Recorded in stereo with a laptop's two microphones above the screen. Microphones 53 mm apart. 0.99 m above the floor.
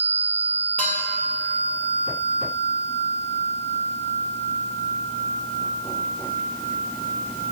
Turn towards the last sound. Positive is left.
turn(degrees=35)  # may be behind; listen again after turning